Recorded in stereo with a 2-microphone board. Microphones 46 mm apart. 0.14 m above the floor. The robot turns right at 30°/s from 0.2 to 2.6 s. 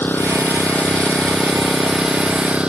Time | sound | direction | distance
0.0 | an engine running | 135° left | ?